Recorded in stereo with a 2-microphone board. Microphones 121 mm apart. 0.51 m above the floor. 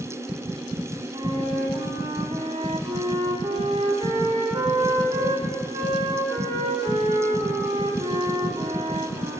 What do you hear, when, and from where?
1.1 s a flute: 55° right (ahead or behind), 1.1 m